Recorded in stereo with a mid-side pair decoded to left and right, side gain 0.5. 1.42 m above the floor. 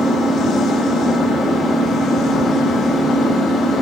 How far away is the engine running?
About 2 m.